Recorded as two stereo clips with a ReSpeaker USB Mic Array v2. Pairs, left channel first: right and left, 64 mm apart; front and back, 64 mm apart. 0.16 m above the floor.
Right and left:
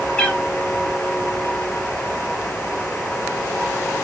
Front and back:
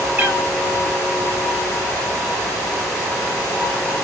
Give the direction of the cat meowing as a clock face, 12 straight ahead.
5 o'clock.